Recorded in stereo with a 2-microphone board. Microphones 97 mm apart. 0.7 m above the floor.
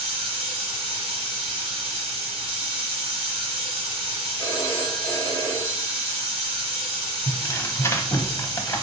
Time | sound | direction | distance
0.0 | running water | 15° right (ahead or behind) | 2.5 m
4.4 | a phone ringing | 40° right (ahead or behind) | 2 m
7.3 | tearing paper | 30° left (ahead or behind) | 0.6 m